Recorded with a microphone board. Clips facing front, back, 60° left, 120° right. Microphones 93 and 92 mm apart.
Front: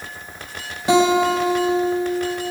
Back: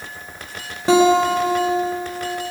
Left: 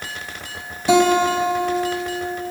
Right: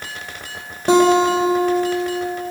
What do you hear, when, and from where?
0.9 s a guitar: 130° right, 2.5 m